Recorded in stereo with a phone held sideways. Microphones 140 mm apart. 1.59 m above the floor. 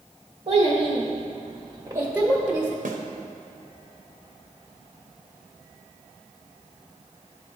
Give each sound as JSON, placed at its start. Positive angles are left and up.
{"t": 0.5, "sound": "a child speaking", "side_deg": -40, "distance_m": 1.0}
{"t": 2.9, "sound": "a snare drum", "side_deg": -75, "distance_m": 0.8}